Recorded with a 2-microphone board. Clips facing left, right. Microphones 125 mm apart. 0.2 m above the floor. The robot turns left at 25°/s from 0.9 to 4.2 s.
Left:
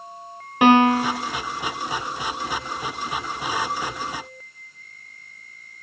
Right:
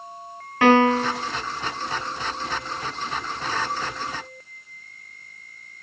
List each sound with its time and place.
0.6 s a piano: 15° left (ahead or behind), 1.1 m